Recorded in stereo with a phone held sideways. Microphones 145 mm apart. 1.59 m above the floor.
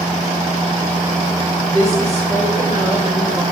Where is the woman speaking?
25° right (ahead or behind), 5.5 m.